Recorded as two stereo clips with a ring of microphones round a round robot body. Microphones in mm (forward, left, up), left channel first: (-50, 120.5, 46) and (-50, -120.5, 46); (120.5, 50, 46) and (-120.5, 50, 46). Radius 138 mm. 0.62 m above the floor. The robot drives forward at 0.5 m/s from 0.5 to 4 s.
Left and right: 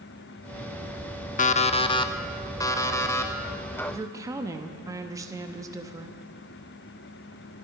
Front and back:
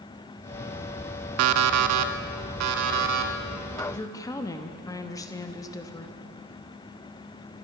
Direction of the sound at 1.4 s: 150° left.